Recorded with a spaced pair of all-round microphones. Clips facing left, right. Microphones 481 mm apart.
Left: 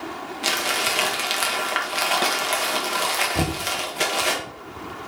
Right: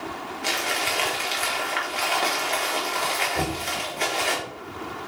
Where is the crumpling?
85° left, 1.7 m.